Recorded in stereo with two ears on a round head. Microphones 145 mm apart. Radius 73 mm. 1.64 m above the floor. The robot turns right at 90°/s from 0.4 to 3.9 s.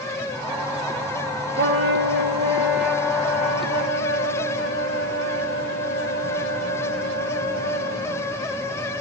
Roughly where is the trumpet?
Behind right.